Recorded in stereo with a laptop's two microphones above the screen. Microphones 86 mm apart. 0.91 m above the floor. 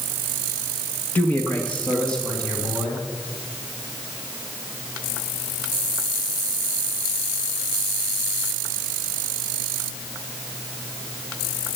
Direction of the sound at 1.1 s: 25° left (ahead or behind).